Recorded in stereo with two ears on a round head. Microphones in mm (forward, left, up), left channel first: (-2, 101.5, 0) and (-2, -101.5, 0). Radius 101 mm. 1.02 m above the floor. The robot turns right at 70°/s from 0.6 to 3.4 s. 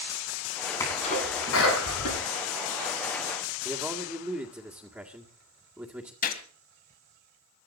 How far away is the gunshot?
About 1.7 m.